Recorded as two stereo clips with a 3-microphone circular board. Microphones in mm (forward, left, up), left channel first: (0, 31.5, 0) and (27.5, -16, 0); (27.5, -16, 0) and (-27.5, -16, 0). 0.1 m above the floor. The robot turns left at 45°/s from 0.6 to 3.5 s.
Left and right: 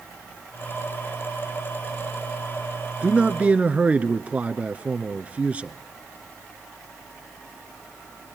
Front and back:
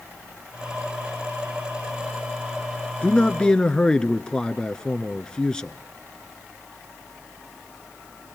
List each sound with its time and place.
3.0 s a man speaking: 35° right, 1.2 m; by 5.8 s 55° right, 1.2 m